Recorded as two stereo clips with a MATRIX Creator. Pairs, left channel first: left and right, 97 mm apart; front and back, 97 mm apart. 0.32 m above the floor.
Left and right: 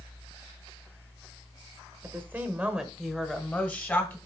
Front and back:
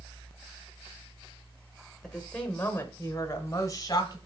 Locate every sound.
2.0 s a woman speaking: 75° right, 1.2 m; by 4.2 s 30° left, 1.5 m